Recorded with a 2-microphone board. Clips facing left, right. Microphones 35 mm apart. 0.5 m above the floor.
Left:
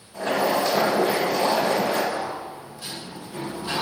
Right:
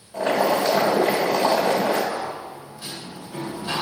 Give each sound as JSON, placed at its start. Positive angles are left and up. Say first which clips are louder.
{"t": 0.1, "sound": "boiling", "louder": "right 2 dB", "side_deg": -65, "distance_m": 1.1}
{"t": 2.1, "sound": "a sliding door", "louder": "even", "side_deg": -20, "distance_m": 1.4}